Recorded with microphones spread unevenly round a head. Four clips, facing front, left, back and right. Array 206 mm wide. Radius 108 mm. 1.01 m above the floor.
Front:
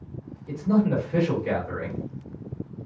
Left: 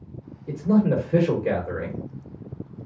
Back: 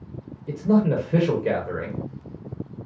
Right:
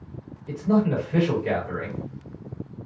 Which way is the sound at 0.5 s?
135° left.